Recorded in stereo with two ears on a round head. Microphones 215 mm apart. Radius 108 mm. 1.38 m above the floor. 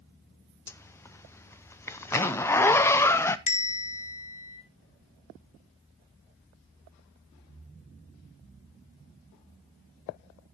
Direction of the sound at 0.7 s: 10° left (ahead or behind).